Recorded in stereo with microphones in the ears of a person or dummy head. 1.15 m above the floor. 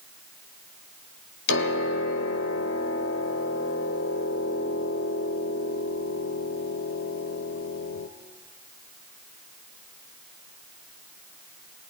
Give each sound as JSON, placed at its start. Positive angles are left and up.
{"t": 1.5, "sound": "a piano", "side_deg": 65, "distance_m": 1.6}